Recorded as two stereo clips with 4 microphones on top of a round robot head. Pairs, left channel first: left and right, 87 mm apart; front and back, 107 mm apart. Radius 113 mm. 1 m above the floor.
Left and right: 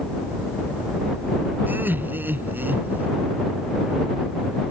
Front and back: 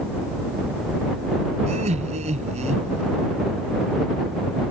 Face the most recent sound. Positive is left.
turn(degrees=-160)